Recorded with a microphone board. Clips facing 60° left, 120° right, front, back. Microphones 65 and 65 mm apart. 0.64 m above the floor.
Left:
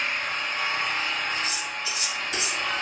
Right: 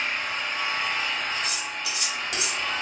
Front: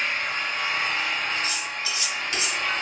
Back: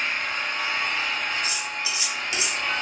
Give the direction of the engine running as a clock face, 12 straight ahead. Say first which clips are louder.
Even, even; 11 o'clock.